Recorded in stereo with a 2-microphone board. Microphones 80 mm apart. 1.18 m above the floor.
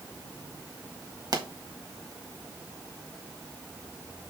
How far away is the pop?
About 1.3 m.